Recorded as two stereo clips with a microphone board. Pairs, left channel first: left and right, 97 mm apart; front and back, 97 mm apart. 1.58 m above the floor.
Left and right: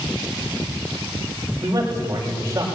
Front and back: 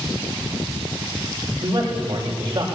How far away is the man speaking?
About 6.5 m.